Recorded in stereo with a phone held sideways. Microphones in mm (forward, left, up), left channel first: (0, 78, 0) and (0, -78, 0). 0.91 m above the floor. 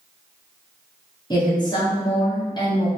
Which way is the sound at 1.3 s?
25° left (ahead or behind).